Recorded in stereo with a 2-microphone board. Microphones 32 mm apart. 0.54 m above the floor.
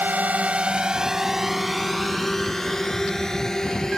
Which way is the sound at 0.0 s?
65° right (ahead or behind).